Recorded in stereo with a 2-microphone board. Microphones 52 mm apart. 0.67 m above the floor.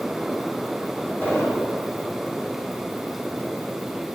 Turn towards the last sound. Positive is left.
turn(degrees=50)  # may be behind; listen again after turning